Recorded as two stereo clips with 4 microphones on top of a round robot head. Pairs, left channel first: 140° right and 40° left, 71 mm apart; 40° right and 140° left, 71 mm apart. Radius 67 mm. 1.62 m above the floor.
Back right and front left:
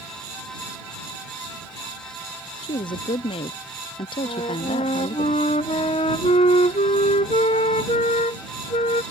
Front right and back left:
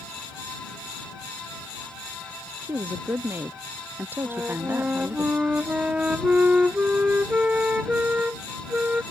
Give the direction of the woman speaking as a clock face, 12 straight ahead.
5 o'clock.